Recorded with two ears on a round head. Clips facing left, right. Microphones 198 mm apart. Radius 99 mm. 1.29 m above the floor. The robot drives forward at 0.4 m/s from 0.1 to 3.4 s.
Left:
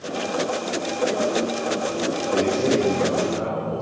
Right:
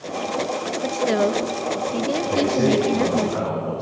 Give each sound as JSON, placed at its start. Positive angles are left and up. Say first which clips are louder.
{"t": 0.8, "sound": "a woman speaking", "louder": "right 4 dB", "side_deg": -65, "distance_m": 0.9}
{"t": 2.3, "sound": "a man speaking", "louder": "right 1 dB", "side_deg": -75, "distance_m": 8.0}